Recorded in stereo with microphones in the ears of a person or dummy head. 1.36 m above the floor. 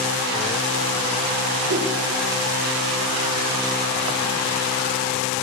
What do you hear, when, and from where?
1.7 s a whoosh: 55° right (ahead or behind), 4 m